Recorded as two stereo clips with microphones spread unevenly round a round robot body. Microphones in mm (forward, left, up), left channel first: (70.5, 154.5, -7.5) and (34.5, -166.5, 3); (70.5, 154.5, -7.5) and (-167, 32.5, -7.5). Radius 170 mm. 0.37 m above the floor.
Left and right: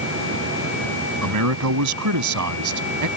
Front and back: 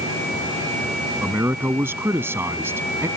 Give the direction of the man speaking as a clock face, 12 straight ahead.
2 o'clock.